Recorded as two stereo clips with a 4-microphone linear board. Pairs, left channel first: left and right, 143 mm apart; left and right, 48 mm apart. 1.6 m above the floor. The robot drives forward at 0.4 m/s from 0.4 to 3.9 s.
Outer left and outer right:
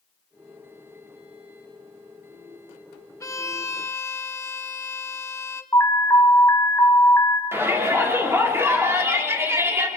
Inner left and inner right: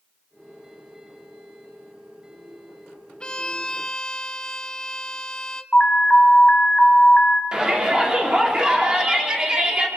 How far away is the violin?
About 1.2 m.